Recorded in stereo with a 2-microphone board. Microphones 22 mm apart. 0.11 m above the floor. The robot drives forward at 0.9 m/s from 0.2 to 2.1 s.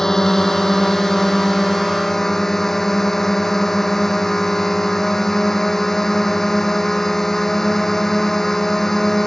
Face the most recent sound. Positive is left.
turn(degrees=15)  # may be behind; listen again after turning